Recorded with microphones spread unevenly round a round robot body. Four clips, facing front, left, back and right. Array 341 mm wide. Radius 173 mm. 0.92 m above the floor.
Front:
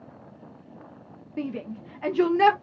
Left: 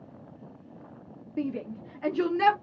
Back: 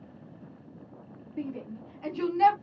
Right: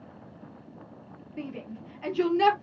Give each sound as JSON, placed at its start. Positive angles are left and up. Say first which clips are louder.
{"t": 1.4, "sound": "a shout", "louder": "left 6 dB, front 4 dB", "azimuth_deg": 25, "distance_m": 1.2}